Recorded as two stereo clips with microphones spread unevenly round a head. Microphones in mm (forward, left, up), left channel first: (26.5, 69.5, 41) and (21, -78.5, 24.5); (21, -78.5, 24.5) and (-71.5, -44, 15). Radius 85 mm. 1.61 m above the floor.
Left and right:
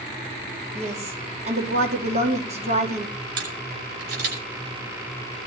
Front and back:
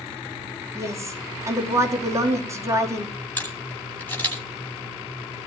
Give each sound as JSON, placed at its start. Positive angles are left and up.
{"t": 0.8, "sound": "a woman speaking", "azimuth_deg": -140, "distance_m": 4.5}
{"t": 3.4, "sound": "a camera shutter", "azimuth_deg": -90, "distance_m": 9.5}